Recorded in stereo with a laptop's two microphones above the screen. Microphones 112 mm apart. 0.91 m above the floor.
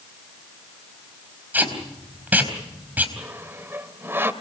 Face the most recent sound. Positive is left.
turn(degrees=-20)  # may be behind; listen again after turning